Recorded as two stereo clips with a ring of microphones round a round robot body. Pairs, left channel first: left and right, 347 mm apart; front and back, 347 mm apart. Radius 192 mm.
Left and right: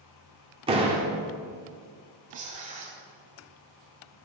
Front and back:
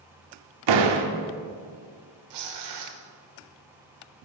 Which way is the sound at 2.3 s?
160° right.